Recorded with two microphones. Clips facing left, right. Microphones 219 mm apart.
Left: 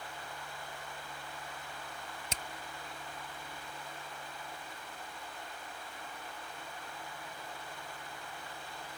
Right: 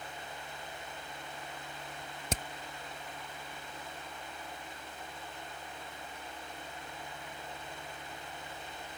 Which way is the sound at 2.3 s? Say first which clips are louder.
Right 10 dB; 55° right (ahead or behind).